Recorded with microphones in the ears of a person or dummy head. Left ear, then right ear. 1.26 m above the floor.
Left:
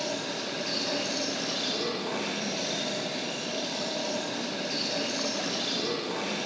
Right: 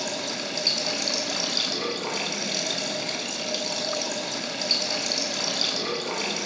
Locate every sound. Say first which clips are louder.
0.0 s running water: right 3 dB; 70° right (ahead or behind), 8 m